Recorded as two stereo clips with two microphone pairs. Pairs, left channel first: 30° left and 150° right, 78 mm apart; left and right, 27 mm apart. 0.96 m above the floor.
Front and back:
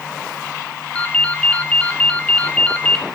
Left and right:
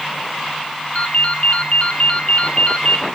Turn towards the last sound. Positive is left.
turn(degrees=105)